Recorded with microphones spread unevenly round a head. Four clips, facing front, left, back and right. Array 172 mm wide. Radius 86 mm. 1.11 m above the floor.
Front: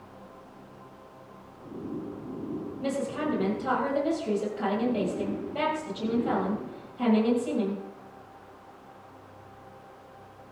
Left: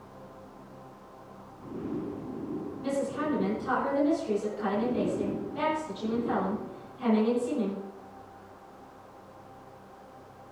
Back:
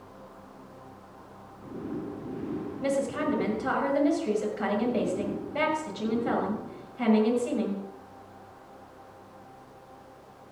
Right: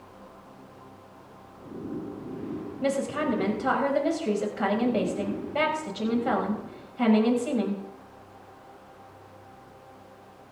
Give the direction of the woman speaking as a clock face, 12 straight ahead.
3 o'clock.